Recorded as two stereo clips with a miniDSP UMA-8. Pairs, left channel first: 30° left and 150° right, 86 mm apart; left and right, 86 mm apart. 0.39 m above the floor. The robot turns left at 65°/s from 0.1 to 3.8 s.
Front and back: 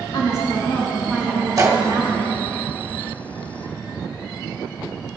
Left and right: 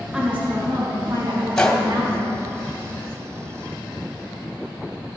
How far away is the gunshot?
About 1.4 m.